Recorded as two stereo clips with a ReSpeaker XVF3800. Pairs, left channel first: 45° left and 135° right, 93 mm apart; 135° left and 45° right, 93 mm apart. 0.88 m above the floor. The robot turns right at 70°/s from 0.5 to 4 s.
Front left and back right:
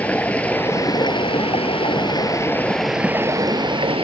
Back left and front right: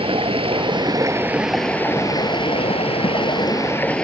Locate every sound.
0.0 s running water: 30° right; by 4.0 s 145° right